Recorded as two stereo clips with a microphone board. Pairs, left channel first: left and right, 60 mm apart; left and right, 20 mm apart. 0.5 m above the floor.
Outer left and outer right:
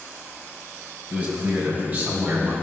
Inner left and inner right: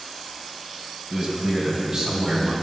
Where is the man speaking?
25° right (ahead or behind), 3.5 m; by 2.5 s 30° right (ahead or behind), 5 m.